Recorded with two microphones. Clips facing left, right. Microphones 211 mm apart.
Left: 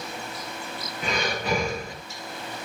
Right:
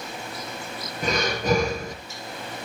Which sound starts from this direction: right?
Breathing, at 1.0 s.